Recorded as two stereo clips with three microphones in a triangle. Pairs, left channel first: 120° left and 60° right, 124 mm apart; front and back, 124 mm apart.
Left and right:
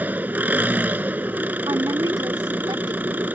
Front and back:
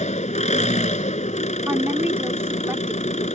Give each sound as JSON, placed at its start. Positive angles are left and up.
{"t": 0.0, "sound": "an engine running", "azimuth_deg": 15}
{"t": 1.7, "sound": "a woman speaking", "azimuth_deg": -110}